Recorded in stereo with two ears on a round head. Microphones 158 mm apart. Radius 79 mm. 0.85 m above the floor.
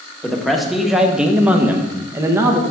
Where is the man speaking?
Centre (ahead or behind), 1.5 m; by 2.6 s 15° right (ahead or behind), 1.1 m.